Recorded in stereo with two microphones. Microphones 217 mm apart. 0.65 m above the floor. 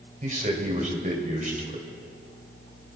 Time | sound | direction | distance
0.2 | a man speaking | 35° right (ahead or behind) | 2.5 m